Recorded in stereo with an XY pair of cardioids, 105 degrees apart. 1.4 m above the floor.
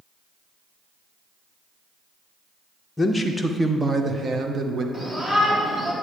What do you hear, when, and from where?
3.0 s a man speaking: 20° left, 0.6 m; by 4.8 s 50° right, 1.2 m
4.9 s a shout: 35° right, 3 m